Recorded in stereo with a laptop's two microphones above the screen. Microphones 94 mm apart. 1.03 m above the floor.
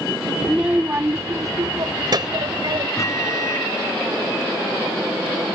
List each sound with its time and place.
0.4 s a child speaking: 5° right (ahead or behind); by 2.9 s 55° right (ahead or behind)
3.0 s a microwave: 35° left (ahead or behind)